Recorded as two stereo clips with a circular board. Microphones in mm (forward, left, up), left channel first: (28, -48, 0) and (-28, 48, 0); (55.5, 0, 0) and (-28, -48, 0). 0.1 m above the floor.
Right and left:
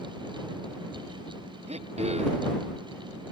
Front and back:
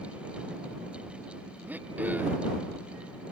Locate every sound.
1.7 s throat clearing: 135° left